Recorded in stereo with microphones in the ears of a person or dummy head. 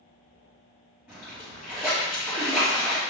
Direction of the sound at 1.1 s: Centre (ahead or behind).